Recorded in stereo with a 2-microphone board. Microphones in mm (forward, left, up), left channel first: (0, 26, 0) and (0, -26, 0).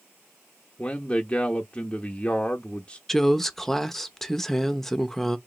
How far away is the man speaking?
About 0.6 m.